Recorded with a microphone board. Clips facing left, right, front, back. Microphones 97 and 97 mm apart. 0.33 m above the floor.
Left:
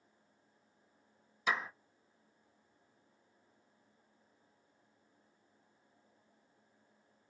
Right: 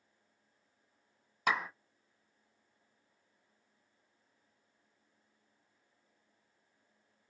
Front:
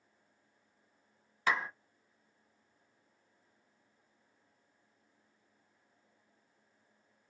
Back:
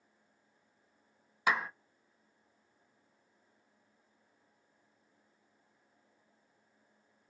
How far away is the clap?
About 1.9 m.